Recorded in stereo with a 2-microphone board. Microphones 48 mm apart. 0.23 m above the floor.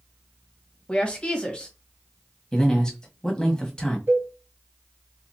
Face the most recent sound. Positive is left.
turn(degrees=-45)  # may be behind; listen again after turning